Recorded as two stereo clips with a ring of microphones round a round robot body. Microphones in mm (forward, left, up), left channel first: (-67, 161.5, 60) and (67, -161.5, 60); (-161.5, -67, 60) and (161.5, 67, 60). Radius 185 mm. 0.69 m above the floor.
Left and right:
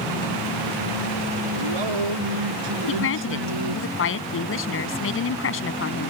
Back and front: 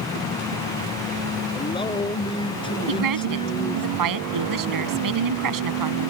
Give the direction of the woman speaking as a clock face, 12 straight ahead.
10 o'clock.